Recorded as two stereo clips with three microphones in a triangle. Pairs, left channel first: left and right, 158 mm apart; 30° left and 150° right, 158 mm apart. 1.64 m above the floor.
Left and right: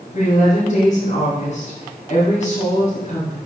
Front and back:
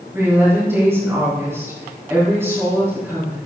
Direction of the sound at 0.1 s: 135° left.